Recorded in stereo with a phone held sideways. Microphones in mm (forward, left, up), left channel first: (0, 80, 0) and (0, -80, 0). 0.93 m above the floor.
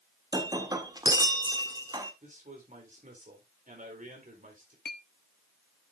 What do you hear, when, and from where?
0.3 s breaking glass: 25° right (ahead or behind), 1.4 m
2.2 s a man speaking: 50° right (ahead or behind), 3.5 m
4.8 s a clink: 70° left (ahead or behind), 1.0 m